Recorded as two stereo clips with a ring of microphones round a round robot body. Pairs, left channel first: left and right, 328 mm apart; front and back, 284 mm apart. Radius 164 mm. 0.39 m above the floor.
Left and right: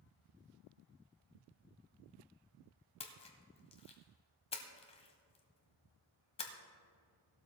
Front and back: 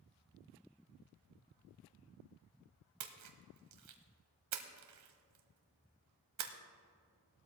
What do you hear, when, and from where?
3.0 s a splash: 165° left, 1.3 m